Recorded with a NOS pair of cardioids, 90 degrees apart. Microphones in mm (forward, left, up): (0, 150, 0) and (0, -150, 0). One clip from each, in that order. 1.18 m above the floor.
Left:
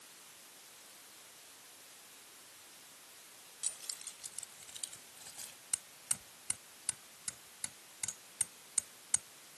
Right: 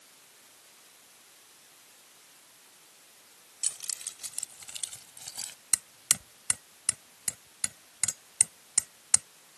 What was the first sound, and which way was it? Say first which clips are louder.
Keys jangling: right 8 dB; 55° right.